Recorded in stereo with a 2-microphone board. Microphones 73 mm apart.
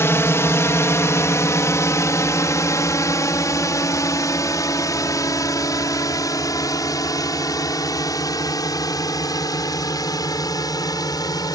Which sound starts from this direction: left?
A drone, at 0.0 s.